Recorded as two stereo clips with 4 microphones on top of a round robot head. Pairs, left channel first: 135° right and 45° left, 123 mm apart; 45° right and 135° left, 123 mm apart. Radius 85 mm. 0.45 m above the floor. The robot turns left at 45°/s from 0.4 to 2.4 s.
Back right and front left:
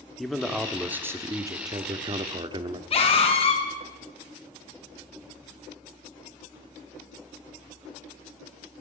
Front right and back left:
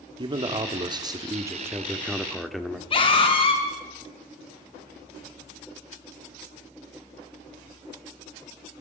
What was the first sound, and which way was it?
A man speaking, 135° left.